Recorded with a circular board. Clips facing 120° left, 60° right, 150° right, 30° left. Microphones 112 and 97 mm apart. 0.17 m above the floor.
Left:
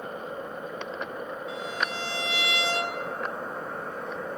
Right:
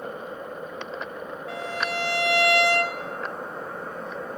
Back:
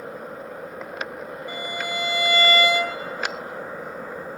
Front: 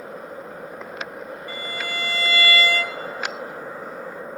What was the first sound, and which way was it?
A violin, 80° right.